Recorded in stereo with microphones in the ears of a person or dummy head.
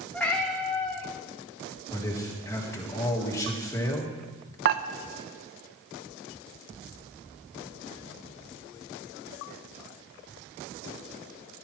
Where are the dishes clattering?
55° right (ahead or behind), 0.7 m.